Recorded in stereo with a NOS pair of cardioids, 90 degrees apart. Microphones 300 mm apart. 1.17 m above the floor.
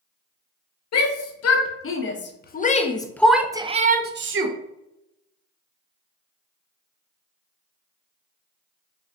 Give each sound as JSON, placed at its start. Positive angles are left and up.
{"t": 0.9, "sound": "a shout", "azimuth_deg": 60, "distance_m": 1.7}